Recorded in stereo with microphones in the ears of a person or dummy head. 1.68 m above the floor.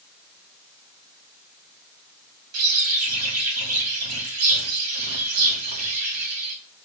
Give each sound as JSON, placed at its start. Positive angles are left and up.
{"t": 2.5, "sound": "a bird", "side_deg": -85, "distance_m": 3.5}